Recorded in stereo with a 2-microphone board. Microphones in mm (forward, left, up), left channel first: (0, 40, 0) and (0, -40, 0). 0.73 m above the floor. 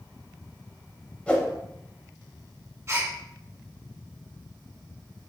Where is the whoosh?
15° left (ahead or behind), 0.8 m.